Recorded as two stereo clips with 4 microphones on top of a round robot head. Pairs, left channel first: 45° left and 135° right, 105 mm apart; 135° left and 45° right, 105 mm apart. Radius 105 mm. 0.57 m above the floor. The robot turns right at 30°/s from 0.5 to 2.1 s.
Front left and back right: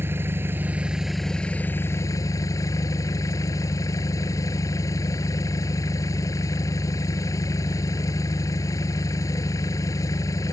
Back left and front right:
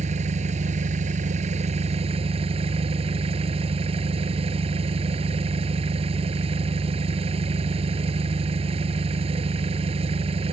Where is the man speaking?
I don't hear a man speaking.